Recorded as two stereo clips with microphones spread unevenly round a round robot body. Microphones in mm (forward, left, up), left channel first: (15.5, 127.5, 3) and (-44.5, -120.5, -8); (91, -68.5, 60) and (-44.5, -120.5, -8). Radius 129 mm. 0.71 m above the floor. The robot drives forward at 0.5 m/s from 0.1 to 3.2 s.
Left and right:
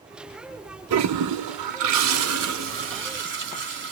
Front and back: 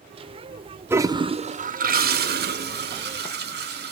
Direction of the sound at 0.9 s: 75° right.